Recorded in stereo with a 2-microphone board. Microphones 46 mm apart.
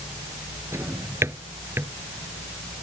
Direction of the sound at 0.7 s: 80° right.